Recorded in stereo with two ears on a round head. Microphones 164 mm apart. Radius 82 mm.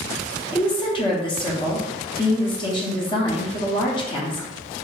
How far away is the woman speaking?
About 0.9 m.